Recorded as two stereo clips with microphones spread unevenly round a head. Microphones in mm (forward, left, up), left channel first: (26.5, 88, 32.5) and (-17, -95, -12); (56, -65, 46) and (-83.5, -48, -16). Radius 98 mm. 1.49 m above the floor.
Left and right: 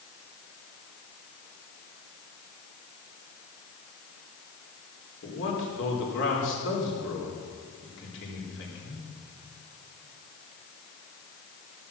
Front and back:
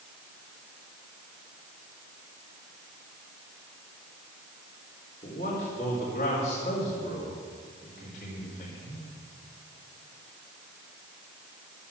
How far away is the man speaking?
About 4 m.